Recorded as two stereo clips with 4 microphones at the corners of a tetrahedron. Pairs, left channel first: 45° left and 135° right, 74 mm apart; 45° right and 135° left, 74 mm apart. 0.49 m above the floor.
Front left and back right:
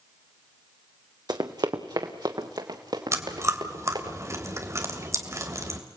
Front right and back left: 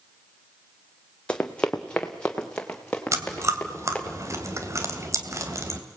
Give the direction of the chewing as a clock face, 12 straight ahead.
6 o'clock.